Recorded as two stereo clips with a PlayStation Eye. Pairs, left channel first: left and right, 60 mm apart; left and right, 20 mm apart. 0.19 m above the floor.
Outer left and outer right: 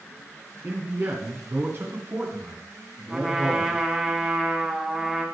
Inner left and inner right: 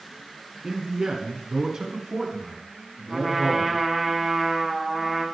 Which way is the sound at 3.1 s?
10° right (ahead or behind).